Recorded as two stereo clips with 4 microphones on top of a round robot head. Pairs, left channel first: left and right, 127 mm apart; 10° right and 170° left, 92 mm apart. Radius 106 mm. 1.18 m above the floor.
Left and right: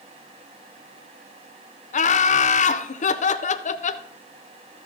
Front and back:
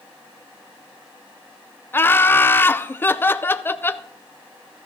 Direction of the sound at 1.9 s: 60° left.